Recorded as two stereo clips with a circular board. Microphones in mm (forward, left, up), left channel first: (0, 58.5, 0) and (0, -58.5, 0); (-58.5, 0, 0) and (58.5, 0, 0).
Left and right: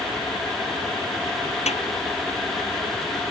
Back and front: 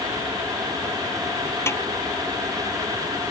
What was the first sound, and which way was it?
A snare drum, 115° left.